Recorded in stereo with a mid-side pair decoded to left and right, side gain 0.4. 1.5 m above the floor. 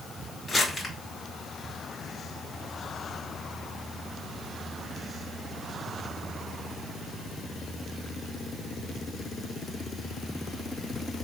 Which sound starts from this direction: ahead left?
Crumpling, at 0.5 s.